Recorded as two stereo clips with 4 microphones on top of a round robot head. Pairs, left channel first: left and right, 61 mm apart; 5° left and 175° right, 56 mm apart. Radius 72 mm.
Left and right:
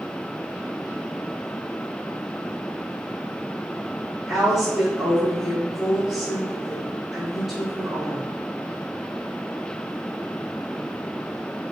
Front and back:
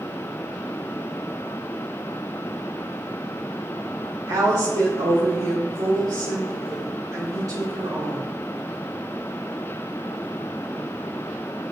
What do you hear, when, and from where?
4.3 s a woman speaking: 170° right, 3 m